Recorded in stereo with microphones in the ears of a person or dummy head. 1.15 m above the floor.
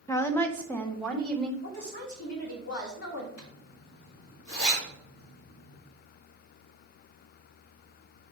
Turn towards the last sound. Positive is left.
turn(degrees=60)  # may be behind; listen again after turning